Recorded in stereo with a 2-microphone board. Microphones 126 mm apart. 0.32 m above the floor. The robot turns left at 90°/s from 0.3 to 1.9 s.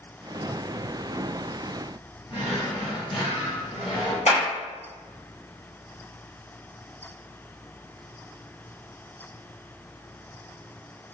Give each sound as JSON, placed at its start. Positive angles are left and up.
{"t": 2.3, "sound": "a drawer", "side_deg": 45, "distance_m": 1.3}
{"t": 4.3, "sound": "a clap", "side_deg": 70, "distance_m": 2.0}